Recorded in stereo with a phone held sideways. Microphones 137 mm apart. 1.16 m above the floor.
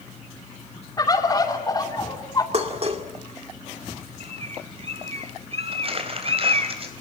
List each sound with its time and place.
1.0 s a bird: 30° left (ahead or behind), 3 m
2.5 s dishes clattering: 50° right (ahead or behind), 2 m
4.2 s a bird: 45° right (ahead or behind), 1.2 m
5.7 s crumpling: 45° right (ahead or behind), 3.5 m